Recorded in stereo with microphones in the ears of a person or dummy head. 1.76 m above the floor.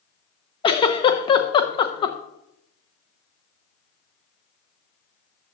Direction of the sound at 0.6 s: 25° left (ahead or behind).